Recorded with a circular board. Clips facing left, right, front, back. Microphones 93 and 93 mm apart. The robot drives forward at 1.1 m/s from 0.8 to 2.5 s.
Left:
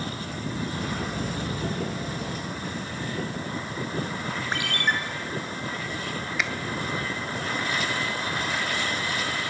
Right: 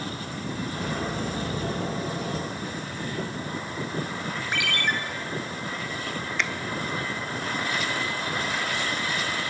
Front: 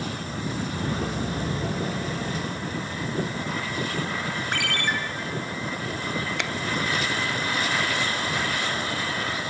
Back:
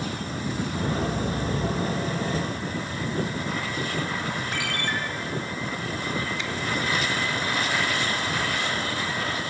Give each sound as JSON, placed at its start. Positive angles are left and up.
{"t": 4.5, "sound": "a ringtone", "azimuth_deg": 30, "distance_m": 1.9}
{"t": 6.4, "sound": "a finger snap", "azimuth_deg": 5, "distance_m": 0.8}